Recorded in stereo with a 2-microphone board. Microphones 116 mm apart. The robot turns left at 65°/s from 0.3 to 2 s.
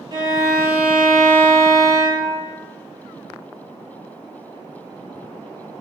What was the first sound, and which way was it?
A violin, 130° right.